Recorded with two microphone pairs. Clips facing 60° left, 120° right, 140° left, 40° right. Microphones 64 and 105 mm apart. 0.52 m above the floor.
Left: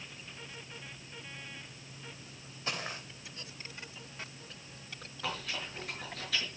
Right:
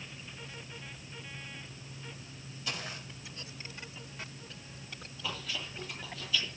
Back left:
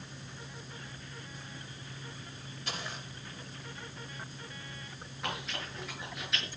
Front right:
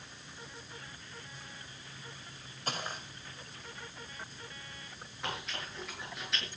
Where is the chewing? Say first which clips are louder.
Left 1 dB, back left 1 dB; 50° left, 7 m.